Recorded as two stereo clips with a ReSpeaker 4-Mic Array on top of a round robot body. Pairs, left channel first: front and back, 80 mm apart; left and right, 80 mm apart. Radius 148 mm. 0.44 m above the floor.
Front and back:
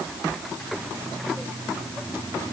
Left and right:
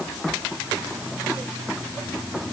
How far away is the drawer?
I don't hear a drawer.